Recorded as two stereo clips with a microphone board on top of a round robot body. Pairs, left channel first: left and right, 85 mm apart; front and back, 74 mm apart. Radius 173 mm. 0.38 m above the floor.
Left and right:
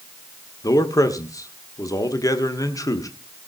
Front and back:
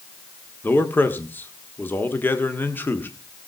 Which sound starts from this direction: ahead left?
A man speaking, at 0.6 s.